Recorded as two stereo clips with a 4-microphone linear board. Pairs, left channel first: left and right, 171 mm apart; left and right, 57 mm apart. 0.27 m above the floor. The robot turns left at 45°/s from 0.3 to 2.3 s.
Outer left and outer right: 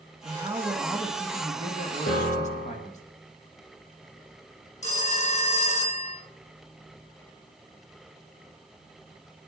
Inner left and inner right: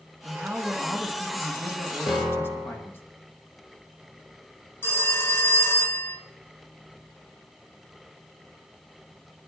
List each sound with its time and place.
0.2 s a man speaking: 145° right, 2 m; by 3.0 s 125° left, 2 m
2.1 s a piano: 55° left (ahead or behind), 2.5 m; by 2.9 s 65° left (ahead or behind), 2.5 m
4.8 s a phone ringing: 40° left (ahead or behind), 2 m